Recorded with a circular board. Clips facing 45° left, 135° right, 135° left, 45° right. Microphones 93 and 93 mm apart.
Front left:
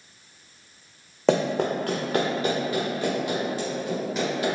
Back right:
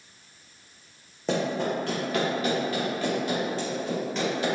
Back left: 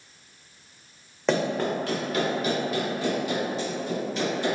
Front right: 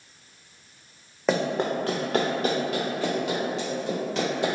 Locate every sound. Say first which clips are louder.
1.3 s running footsteps: front left 5 dB, even; 40° left, 0.9 m; by 4.5 s 40° right, 3.5 m